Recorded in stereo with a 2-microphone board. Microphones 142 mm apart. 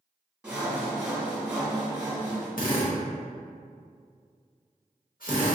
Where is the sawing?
10° right (ahead or behind), 1.3 m.